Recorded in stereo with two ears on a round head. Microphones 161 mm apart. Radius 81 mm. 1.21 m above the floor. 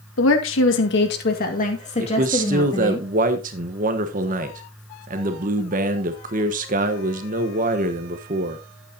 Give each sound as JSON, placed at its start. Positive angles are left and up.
{"t": 0.2, "sound": "a woman speaking", "side_deg": 75, "distance_m": 2.0}
{"t": 2.0, "sound": "a man speaking", "side_deg": -45, "distance_m": 1.2}